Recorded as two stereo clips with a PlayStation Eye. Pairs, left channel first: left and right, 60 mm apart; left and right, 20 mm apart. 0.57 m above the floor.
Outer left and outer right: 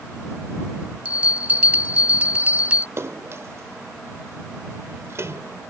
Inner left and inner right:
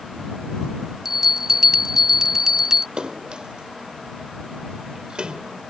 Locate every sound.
1.1 s a bell: 25° right (ahead or behind)
3.0 s a splash: 50° right (ahead or behind)